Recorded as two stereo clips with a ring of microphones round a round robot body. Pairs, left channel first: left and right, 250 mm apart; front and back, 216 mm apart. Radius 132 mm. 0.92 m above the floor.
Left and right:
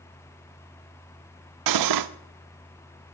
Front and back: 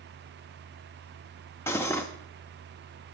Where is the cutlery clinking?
80° right, 0.5 m.